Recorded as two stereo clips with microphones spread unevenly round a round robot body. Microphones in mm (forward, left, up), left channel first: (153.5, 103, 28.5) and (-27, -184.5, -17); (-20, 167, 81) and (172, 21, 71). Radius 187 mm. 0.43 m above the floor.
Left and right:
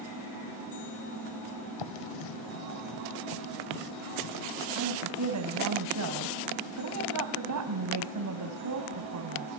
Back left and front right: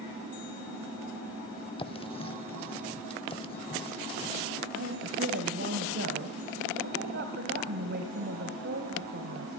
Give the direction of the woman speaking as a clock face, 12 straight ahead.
3 o'clock.